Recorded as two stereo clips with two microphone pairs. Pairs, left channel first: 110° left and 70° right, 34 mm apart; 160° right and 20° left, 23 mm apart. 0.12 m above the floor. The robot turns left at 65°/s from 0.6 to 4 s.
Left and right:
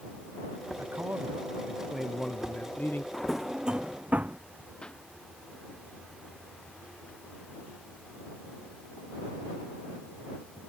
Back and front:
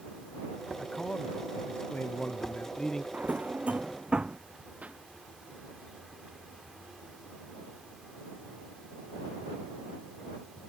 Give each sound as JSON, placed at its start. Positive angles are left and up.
{"t": 0.8, "sound": "a man speaking", "azimuth_deg": -80}
{"t": 3.1, "sound": "a drawer", "azimuth_deg": 30}
{"t": 4.8, "sound": "a pop", "azimuth_deg": 40}